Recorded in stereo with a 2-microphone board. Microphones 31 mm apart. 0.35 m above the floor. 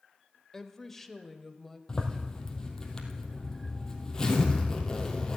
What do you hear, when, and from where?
0.5 s a woman speaking: 15° left (ahead or behind), 0.9 m; by 1.8 s 5° left (ahead or behind), 1.3 m
1.9 s a zipper: 20° left (ahead or behind), 2 m